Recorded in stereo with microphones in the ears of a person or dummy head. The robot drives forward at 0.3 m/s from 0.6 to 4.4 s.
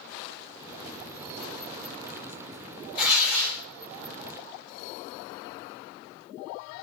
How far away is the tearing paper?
About 1.7 m.